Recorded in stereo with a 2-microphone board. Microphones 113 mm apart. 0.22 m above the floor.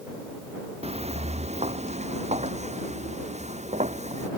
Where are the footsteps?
70° right (ahead or behind); by 4.3 s 90° right.